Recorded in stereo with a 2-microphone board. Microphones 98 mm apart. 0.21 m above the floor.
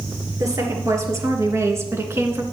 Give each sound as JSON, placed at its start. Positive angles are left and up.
{"t": 0.4, "sound": "a woman speaking", "side_deg": -35, "distance_m": 3.0}